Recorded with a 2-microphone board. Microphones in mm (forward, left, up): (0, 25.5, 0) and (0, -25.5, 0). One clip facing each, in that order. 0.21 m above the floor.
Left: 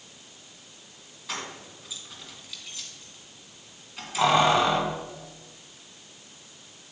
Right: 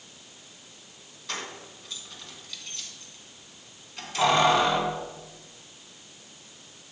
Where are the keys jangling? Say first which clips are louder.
Even; 5° left (ahead or behind), 1.3 m.